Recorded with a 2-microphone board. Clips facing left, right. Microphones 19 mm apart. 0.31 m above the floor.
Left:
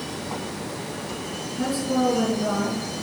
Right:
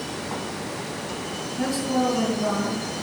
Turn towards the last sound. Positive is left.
turn(degrees=-40)  # may be behind; listen again after turning